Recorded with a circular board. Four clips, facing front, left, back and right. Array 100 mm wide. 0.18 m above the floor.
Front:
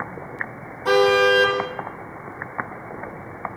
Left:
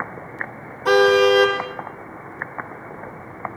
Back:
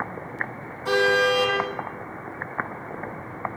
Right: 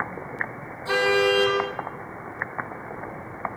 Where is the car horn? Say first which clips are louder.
Left 7 dB, front 4 dB; 70° left, 4 m.